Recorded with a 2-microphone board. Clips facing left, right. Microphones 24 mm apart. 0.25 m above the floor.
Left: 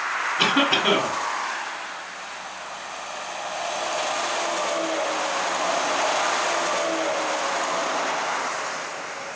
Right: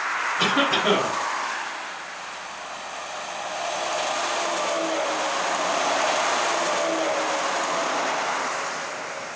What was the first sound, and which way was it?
A cough, 30° left (ahead or behind).